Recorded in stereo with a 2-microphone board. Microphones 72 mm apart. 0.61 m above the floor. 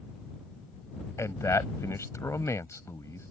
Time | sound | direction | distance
1.2 | a man speaking | 45° left (ahead or behind) | ?